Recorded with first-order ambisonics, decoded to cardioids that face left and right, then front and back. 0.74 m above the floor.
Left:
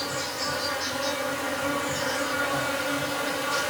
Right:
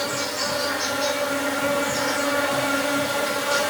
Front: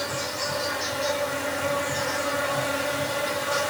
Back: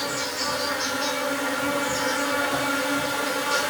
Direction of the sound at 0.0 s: 125° right.